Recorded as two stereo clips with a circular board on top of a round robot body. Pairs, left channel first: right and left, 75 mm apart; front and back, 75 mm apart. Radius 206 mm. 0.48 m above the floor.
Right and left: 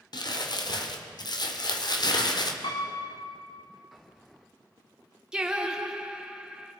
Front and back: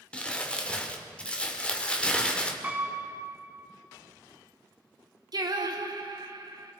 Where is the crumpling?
75° right, 2 m.